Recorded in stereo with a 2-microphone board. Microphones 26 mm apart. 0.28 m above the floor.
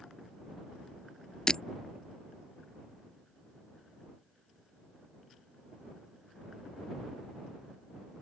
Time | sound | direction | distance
1.5 | breaking glass | 25° left (ahead or behind) | ?